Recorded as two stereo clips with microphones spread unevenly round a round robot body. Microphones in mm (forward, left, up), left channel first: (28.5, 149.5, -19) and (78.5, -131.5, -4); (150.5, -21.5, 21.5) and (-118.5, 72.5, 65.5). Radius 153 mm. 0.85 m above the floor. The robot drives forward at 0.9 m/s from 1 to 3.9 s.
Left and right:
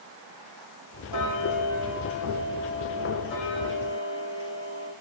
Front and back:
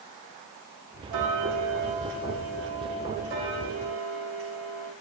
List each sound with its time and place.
1.1 s ticking: 135° left, 2.5 m; by 4.9 s 160° left, 4.5 m